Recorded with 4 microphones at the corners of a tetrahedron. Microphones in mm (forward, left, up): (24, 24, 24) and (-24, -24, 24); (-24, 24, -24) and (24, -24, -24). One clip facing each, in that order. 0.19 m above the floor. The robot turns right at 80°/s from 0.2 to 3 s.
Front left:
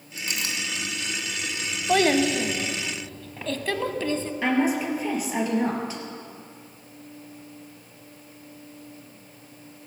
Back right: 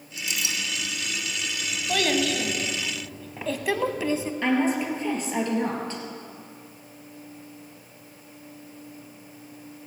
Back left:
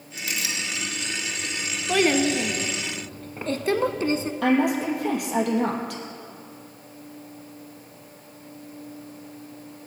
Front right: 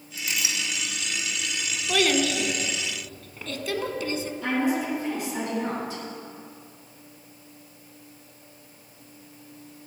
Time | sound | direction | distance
0.2 | a clink | 5° left | 1.6 m
1.9 | a child speaking | 65° left | 0.8 m
4.4 | a woman speaking | 125° left | 3.5 m